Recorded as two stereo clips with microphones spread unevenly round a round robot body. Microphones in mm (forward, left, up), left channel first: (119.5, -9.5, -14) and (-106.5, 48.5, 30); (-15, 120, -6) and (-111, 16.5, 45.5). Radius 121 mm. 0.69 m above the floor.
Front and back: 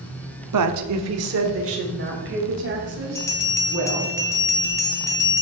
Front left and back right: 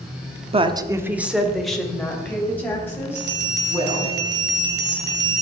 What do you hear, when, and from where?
0.5 s a woman speaking: 170° left, 1.1 m; by 4.1 s 115° left, 6 m
3.1 s a bell: 95° right, 1.3 m